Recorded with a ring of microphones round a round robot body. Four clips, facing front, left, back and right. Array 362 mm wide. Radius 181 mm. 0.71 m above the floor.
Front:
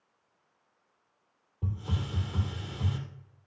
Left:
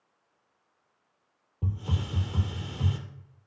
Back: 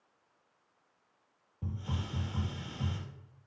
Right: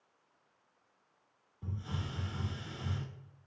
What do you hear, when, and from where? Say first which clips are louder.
1.6 s a hiss: left 7 dB, front 3 dB; 90° left, 2.5 m